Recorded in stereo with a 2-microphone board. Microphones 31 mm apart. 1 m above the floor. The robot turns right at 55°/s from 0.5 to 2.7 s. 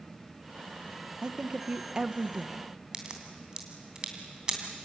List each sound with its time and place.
1.2 s a woman speaking: 25° right (ahead or behind), 0.8 m; by 2.7 s 5° right (ahead or behind), 0.8 m
2.9 s a crack: 30° right (ahead or behind), 3 m